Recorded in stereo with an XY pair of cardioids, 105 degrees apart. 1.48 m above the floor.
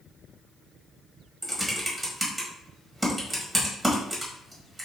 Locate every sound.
1.4 s typing on a keyboard: 20° right, 1.8 m